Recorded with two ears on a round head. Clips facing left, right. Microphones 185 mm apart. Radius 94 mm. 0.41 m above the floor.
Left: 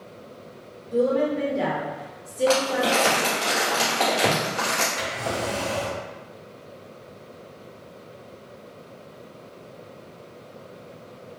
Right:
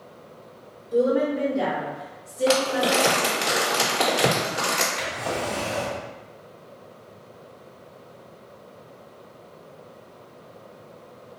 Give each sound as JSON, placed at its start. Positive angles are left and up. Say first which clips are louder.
{"t": 0.9, "sound": "a woman speaking", "louder": "right 1 dB", "side_deg": -10, "distance_m": 0.9}
{"t": 2.5, "sound": "crumpling", "louder": "right 1 dB", "side_deg": -20, "distance_m": 1.5}
{"t": 5.0, "sound": "a drawer", "louder": "even", "side_deg": 15, "distance_m": 1.2}